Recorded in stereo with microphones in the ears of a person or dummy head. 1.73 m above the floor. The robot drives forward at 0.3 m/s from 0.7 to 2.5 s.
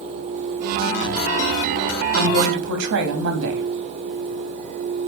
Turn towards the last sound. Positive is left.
turn(degrees=-80)